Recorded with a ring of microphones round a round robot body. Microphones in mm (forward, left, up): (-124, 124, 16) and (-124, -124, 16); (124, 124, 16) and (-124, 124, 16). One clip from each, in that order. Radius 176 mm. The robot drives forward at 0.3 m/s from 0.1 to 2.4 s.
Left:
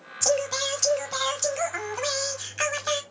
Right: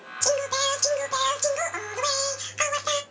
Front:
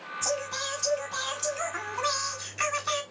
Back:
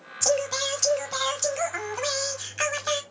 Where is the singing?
170° left, 1.0 m; by 3.0 s 175° left, 1.6 m.